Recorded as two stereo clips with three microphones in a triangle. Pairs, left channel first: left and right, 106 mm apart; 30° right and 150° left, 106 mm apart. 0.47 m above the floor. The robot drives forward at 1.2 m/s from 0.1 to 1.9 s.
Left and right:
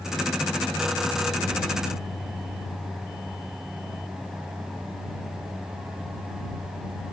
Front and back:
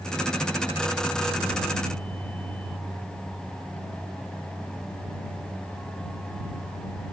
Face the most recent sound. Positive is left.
No sound to turn to.